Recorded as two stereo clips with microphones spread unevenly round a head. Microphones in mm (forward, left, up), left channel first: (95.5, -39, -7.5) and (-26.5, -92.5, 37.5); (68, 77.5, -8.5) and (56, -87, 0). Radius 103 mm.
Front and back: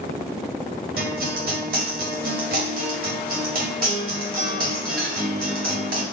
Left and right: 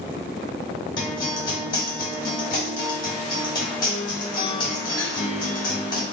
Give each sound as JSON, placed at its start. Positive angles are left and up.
{"t": 1.0, "sound": "a guitar", "azimuth_deg": 160, "distance_m": 0.7}